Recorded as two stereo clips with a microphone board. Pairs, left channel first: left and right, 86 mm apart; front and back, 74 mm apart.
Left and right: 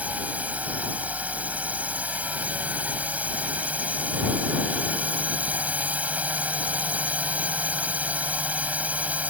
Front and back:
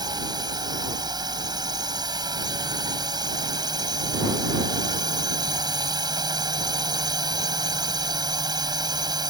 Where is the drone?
160° right.